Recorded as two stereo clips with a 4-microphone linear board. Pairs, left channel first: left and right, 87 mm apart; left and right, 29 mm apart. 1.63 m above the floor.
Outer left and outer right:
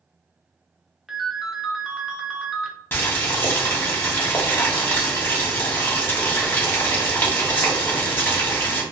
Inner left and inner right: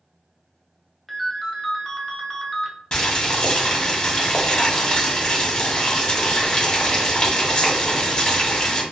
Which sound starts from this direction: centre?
A ringtone, at 1.1 s.